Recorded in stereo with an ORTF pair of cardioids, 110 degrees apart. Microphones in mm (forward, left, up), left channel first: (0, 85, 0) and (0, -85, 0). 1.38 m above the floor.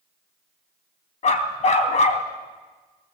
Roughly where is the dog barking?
Ahead left.